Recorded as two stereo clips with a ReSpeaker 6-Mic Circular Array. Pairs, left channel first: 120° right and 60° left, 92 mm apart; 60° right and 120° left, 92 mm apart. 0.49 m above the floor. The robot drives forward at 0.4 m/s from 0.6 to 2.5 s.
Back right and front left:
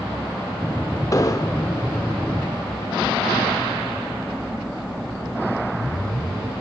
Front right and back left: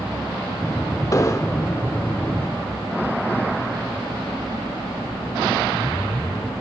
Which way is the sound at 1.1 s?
90° right.